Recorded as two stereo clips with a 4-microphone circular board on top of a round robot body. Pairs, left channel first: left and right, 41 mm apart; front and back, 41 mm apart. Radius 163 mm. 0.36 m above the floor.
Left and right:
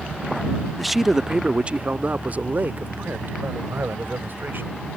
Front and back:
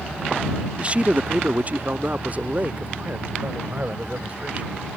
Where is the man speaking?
175° left; by 4.7 s 125° right.